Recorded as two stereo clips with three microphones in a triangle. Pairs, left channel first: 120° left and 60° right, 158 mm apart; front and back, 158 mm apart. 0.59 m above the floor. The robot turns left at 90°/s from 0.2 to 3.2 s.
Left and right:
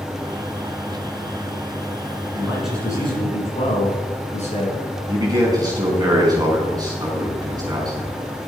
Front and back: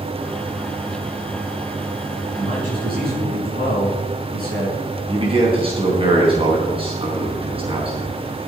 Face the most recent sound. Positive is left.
turn(degrees=-125)